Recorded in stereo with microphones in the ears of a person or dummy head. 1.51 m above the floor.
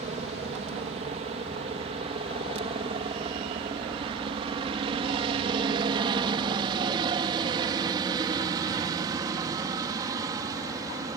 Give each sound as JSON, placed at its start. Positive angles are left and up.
{"t": 0.0, "sound": "a helicopter", "side_deg": -40}